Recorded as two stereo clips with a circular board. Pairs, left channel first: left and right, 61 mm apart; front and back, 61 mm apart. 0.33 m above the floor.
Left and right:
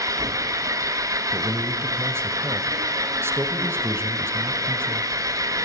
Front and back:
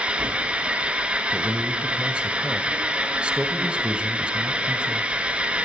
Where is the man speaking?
115° right, 1.6 m.